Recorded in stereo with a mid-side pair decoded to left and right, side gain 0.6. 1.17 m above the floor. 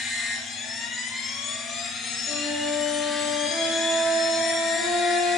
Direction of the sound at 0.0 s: 45° left.